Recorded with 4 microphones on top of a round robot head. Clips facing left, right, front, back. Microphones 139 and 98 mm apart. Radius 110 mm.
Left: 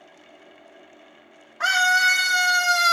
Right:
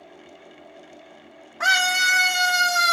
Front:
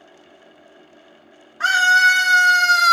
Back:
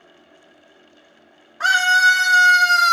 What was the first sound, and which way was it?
A scream, 110° right.